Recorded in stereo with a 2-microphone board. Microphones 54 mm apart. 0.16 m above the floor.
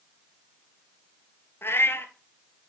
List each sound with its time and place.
1.6 s a cat meowing: 50° left (ahead or behind), 1.2 m